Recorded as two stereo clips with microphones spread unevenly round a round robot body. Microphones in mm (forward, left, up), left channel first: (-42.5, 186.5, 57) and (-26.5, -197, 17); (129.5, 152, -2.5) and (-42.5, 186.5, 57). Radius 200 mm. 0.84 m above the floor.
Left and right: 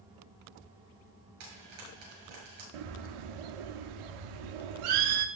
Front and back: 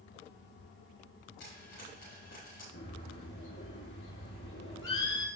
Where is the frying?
60° right, 6.5 m.